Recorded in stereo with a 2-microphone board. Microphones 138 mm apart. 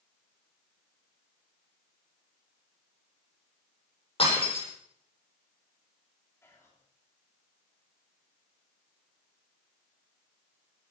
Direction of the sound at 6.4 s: 20° left (ahead or behind).